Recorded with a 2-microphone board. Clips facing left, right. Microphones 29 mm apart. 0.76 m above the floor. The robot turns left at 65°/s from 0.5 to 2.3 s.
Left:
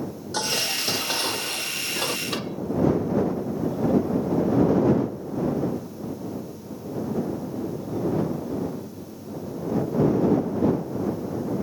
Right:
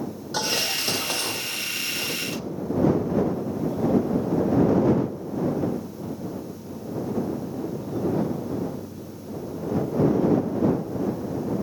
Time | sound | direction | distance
0.3 | dishes clattering | 170° right | ?
2.3 | a microwave | 80° left | ?